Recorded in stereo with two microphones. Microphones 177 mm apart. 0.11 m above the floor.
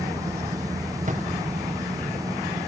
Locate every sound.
1.1 s a drawer: 45° right (ahead or behind), 4 m